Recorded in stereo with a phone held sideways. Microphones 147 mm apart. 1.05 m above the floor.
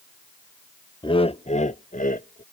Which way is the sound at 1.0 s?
30° left (ahead or behind).